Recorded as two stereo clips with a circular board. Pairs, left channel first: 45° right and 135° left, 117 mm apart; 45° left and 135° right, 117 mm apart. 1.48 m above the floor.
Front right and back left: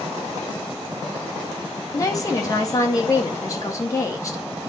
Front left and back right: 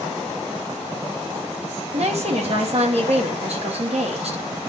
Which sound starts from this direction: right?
A woman speaking, at 1.9 s.